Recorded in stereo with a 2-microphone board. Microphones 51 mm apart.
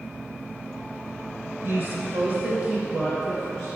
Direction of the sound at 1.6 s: 50° right (ahead or behind).